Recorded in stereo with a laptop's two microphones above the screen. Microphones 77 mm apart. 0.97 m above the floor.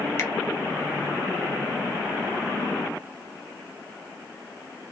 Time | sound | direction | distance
0.2 | a finger snap | 35° left (ahead or behind) | 0.5 m